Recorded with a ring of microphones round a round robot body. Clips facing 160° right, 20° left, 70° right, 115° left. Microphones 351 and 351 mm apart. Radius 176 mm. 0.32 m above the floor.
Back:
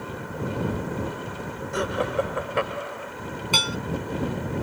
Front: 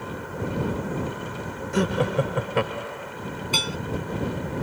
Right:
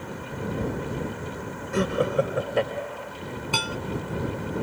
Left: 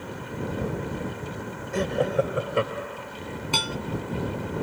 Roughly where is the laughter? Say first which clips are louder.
Front 3 dB, right 1 dB; ahead.